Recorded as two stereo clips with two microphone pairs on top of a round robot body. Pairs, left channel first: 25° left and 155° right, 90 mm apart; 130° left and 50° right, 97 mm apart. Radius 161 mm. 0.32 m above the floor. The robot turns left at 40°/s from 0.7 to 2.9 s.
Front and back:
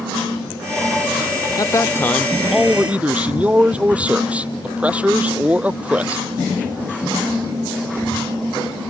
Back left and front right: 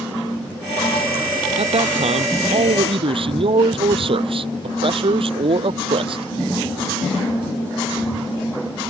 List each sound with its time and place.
1.6 s a man speaking: 25° right; by 6.2 s 80° right